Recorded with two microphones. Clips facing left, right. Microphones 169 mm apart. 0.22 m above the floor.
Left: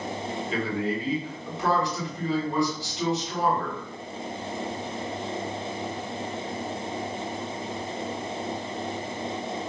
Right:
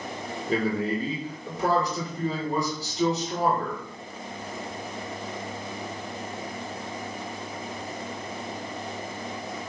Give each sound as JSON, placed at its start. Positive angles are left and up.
{"t": 0.5, "sound": "a man speaking", "side_deg": -45, "distance_m": 1.6}